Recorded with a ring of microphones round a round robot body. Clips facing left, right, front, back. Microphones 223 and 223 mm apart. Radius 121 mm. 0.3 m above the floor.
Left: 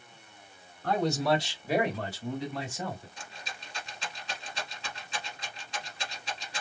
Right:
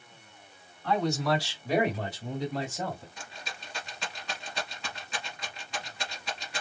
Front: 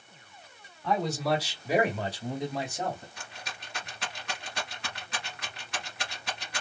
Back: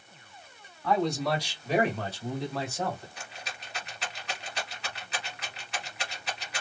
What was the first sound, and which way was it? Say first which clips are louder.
A man speaking: left 1 dB, back 1 dB; 90° left.